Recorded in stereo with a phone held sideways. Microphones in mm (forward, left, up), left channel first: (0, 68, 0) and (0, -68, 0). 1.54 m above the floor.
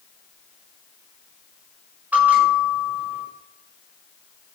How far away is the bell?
About 8.5 m.